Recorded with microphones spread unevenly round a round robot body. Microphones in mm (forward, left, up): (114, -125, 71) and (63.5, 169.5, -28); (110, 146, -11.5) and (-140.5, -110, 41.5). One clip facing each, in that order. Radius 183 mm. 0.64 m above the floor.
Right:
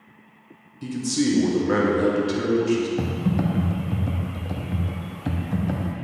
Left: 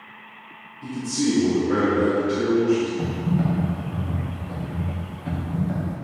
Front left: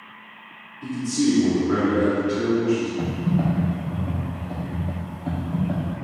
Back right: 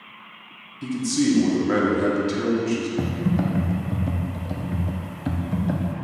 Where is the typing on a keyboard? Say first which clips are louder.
Even, even; 100° right, 0.7 m.